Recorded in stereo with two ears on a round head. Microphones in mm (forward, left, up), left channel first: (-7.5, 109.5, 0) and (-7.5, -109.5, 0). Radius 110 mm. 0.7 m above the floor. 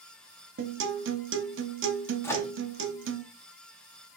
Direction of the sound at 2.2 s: 10° left (ahead or behind).